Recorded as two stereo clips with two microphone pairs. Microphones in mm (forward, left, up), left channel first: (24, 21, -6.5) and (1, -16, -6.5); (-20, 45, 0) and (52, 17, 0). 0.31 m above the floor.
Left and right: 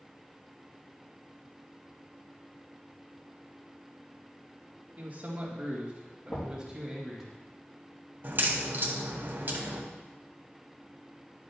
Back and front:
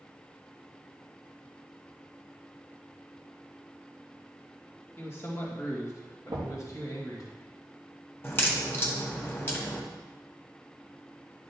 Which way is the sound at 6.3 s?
20° left.